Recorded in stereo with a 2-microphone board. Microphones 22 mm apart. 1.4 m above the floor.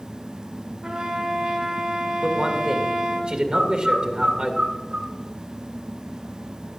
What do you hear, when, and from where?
0.8 s a trumpet: 65° right (ahead or behind), 3 m
2.2 s a man speaking: 60° right (ahead or behind), 1.9 m
3.5 s a bird: 85° right, 4 m